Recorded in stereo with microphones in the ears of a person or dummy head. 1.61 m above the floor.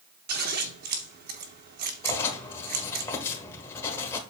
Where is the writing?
15° left (ahead or behind), 1.5 m.